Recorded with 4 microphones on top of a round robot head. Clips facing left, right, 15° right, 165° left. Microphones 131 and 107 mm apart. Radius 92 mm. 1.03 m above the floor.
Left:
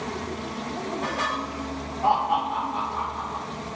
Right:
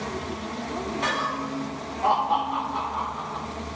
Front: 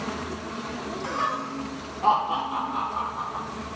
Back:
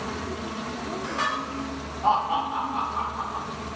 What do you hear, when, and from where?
1.0 s laughter: straight ahead, 1.5 m; by 3.4 s 45° right, 3 m